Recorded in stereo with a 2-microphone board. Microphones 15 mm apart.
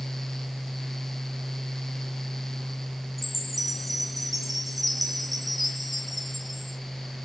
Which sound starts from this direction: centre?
A chime, at 3.2 s.